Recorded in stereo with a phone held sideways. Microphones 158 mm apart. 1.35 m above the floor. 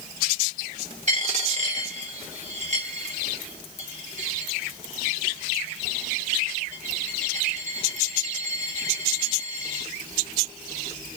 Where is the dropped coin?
45° right (ahead or behind), 0.9 m.